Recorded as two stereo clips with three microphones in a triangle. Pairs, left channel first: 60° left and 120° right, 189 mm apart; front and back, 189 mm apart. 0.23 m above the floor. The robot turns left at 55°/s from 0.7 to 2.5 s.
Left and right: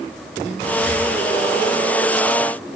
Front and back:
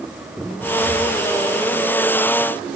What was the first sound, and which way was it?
Breathing, 55° left.